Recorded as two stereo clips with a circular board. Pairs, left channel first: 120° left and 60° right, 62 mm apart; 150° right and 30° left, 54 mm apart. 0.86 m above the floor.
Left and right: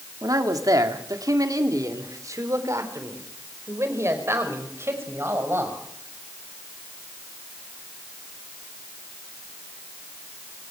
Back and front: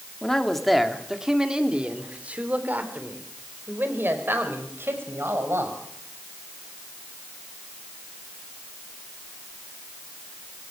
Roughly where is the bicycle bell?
No bicycle bell in this recording.